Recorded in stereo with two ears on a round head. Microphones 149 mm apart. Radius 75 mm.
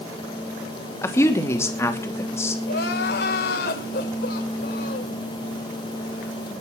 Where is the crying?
60° left (ahead or behind), 3 m.